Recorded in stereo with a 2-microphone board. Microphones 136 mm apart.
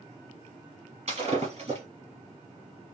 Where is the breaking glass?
50° right (ahead or behind), 3.5 m.